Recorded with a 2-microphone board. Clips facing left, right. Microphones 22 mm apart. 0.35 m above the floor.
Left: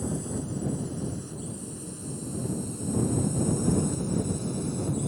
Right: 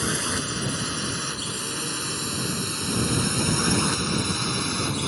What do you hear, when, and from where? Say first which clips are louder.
0.0 s a drone: right 6 dB; 70° right (ahead or behind); by 5.1 s 65° right (ahead or behind)